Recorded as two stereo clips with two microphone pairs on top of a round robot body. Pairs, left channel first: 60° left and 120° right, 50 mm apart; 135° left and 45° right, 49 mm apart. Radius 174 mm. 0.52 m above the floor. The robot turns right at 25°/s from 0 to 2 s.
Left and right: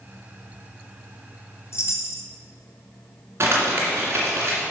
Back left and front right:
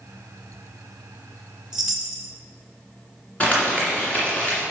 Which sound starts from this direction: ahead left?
A chime, at 1.7 s.